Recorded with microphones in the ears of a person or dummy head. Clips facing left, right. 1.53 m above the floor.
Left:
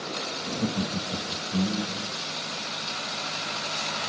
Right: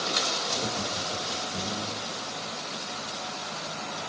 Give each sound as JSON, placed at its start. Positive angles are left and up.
{"t": 0.5, "sound": "laughter", "side_deg": 55, "distance_m": 2.5}